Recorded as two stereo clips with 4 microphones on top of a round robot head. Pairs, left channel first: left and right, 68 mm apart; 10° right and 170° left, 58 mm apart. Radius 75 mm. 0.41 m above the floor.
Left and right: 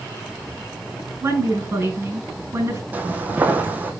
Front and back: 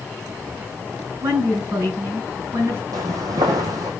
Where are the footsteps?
155° right, 1.1 m.